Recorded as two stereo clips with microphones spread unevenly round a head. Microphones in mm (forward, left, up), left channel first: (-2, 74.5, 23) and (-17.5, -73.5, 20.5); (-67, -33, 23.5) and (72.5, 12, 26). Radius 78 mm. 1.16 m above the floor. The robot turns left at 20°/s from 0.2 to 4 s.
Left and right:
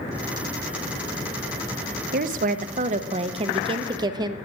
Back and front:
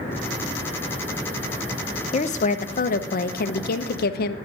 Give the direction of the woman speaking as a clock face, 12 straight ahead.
4 o'clock.